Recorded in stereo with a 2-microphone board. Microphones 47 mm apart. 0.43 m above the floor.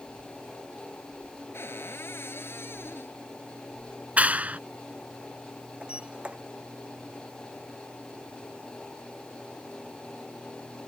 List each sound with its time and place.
1.5 s a cupboard door: 60° left (ahead or behind)
4.2 s a clap: 30° right (ahead or behind)
5.8 s a sliding door: 25° right (ahead or behind)